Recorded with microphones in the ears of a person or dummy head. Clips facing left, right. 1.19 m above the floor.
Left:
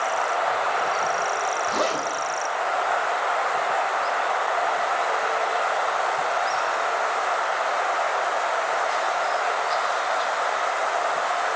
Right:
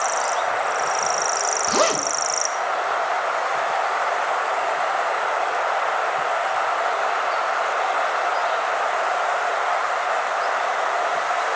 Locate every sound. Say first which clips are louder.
1.7 s a zipper: right 7 dB; 60° right (ahead or behind), 0.7 m